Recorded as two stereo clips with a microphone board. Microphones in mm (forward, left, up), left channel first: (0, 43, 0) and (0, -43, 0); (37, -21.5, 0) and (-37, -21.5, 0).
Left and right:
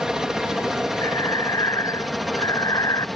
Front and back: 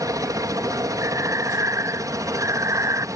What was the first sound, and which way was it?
A helicopter, 170° right.